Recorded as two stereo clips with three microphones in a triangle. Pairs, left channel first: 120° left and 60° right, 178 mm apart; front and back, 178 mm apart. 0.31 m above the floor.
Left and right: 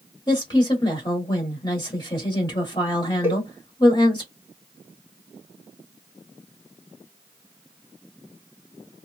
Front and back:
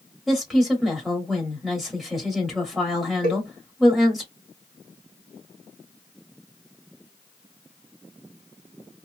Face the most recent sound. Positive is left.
turn(degrees=15)